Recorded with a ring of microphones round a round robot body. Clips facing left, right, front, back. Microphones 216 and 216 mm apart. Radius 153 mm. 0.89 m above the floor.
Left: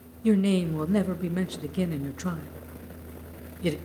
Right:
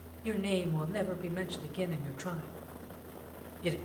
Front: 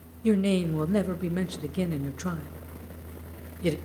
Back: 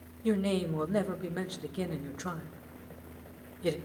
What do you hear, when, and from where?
0.2 s a man speaking: 60° left, 1.0 m